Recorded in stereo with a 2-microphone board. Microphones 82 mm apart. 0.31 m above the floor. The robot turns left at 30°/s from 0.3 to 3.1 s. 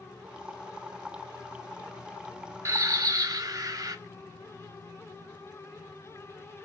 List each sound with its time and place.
2.6 s a bird: 35° right (ahead or behind), 0.5 m; by 4.0 s 45° right (ahead or behind), 0.5 m